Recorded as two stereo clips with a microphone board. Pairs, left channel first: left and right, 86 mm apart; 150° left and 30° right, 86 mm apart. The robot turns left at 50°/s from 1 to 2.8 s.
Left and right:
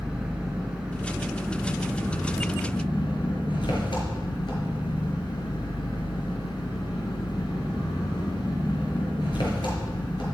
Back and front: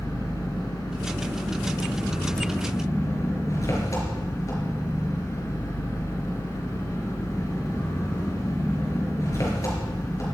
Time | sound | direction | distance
0.0 | an engine running | 170° right | 5 m